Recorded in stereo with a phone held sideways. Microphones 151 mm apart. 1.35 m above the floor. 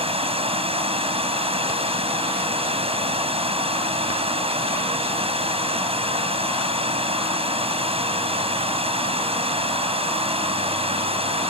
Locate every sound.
0.0 s running water: 40° right (ahead or behind)